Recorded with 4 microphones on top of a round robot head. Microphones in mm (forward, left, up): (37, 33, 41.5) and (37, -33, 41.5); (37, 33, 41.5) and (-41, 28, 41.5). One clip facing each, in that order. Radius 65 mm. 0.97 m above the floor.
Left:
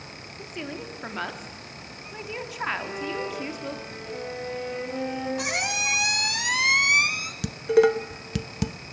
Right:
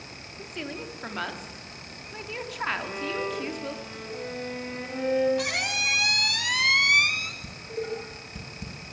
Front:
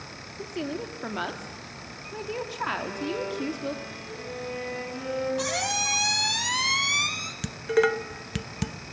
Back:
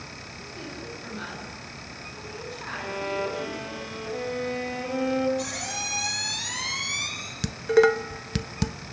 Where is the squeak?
25° left, 1.5 m.